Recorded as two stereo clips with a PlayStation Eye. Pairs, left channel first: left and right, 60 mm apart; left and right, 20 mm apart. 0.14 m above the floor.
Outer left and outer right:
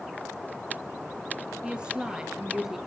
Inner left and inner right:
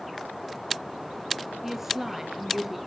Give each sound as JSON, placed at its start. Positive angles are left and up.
{"t": 1.6, "sound": "a woman speaking", "side_deg": -15, "distance_m": 2.5}